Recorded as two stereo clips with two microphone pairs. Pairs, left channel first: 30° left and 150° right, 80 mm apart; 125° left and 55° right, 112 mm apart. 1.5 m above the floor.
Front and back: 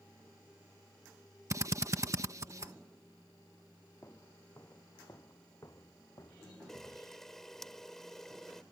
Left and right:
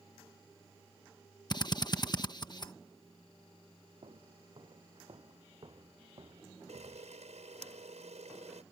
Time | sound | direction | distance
1.5 | a drill | 165° left | ?
4.0 | footsteps | 25° right | ?
6.7 | a camera shutter | 55° right | ?